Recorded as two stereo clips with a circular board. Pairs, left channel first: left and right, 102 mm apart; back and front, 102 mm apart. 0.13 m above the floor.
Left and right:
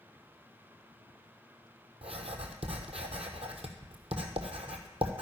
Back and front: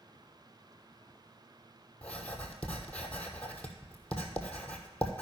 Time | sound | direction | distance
2.0 | writing | 105° right | 1.2 m